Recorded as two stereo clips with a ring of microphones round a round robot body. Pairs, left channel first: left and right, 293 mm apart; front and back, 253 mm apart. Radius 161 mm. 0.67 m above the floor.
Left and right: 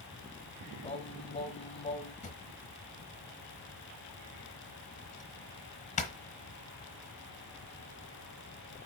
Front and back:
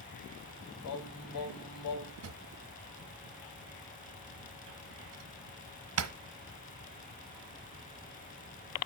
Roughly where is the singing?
Ahead.